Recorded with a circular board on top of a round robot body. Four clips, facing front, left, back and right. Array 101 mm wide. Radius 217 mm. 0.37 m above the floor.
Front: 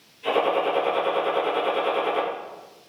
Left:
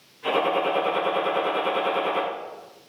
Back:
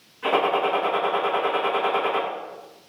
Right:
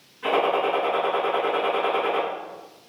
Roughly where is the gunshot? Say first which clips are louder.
Right 1 dB, back 1 dB; behind right.